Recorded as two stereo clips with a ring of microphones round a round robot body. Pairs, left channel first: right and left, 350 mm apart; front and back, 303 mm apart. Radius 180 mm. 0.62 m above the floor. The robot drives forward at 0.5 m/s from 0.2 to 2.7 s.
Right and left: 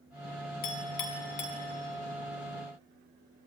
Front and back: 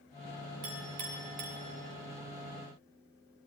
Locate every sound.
0.6 s a clink: 125° right, 3.5 m; by 1.6 s 130° right, 4 m